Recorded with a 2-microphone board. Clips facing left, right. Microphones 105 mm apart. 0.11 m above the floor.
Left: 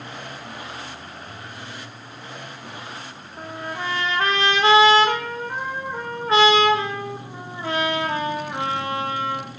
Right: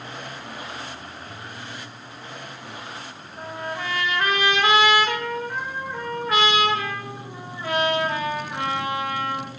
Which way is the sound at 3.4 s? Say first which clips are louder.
Even; 30° left (ahead or behind).